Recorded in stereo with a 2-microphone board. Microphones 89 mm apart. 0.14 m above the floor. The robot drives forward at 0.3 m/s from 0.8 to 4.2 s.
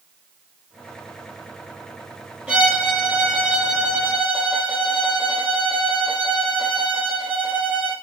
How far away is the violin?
About 3 m.